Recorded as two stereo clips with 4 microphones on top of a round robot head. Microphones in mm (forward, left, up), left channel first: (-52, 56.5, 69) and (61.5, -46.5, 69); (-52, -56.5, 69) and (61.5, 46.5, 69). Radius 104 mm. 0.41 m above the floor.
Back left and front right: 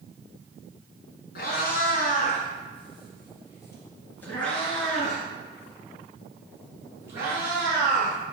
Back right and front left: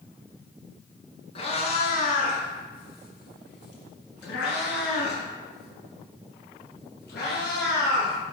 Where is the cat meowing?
165° left, 1.6 m; by 8.2 s 115° right, 3.5 m.